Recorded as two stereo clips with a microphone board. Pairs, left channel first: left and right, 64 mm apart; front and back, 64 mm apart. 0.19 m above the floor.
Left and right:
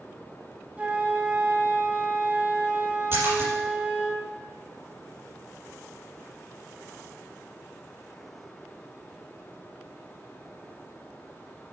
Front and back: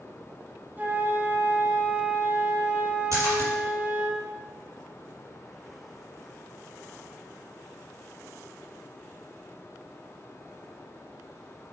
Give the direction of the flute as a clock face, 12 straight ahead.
5 o'clock.